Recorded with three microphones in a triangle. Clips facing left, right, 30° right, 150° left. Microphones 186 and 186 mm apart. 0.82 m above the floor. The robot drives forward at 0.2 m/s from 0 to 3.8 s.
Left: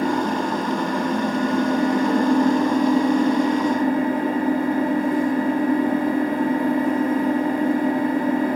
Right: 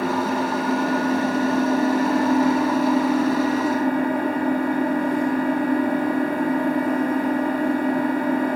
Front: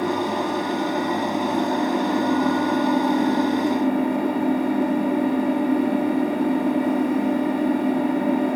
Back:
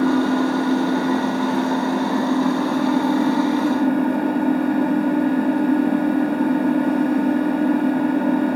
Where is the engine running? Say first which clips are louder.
Left 1 dB, back 6 dB; 140° left, 5 m; by 8.6 s 145° left, 5.5 m.